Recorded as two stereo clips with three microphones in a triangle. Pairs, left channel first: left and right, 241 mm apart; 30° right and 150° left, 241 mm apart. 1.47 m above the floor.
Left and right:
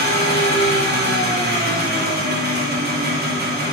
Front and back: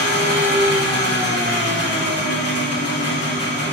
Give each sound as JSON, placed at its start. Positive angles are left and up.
{"t": 0.0, "sound": "an engine running", "azimuth_deg": -40, "distance_m": 3.0}